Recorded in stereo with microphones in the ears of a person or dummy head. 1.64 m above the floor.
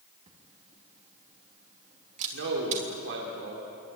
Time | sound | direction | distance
0.3 | a camera shutter | 35° right (ahead or behind) | 3.5 m
2.3 | a man speaking | 80° right | 4 m